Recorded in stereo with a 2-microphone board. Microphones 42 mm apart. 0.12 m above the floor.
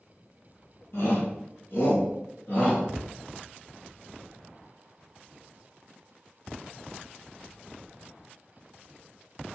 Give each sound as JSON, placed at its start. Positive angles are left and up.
{"t": 0.9, "sound": "a shout", "side_deg": 70, "distance_m": 3.5}
{"t": 3.0, "sound": "a cupboard door", "side_deg": 5, "distance_m": 0.6}